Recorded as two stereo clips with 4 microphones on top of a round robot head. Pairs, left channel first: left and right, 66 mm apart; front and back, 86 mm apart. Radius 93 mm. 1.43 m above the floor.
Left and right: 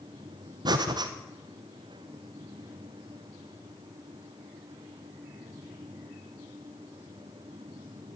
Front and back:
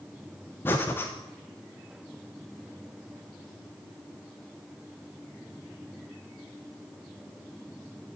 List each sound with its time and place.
0.7 s breathing: 70° right, 0.9 m